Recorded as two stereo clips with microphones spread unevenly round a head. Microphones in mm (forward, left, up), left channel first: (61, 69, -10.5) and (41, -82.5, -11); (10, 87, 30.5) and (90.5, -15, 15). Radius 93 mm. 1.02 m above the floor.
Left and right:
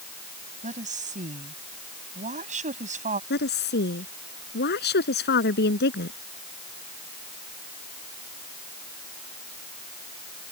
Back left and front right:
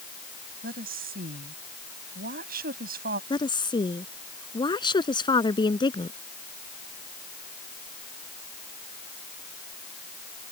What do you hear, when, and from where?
0.6 s a woman speaking: 60° right
3.3 s a woman speaking: 75° left